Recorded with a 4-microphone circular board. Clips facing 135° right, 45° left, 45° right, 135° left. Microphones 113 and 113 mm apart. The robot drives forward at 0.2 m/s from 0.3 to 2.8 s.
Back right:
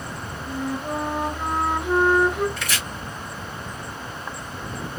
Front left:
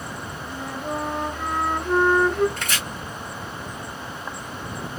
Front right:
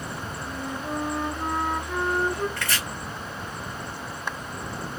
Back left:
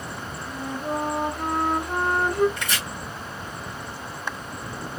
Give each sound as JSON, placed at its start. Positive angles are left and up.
{"t": 0.5, "sound": "a flute", "azimuth_deg": 135, "distance_m": 1.2}
{"t": 2.6, "sound": "chopping", "azimuth_deg": 70, "distance_m": 2.0}